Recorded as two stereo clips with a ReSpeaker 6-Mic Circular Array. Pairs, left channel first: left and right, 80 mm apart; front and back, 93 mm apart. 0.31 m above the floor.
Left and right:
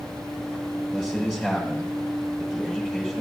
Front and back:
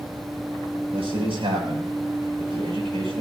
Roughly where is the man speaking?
Behind.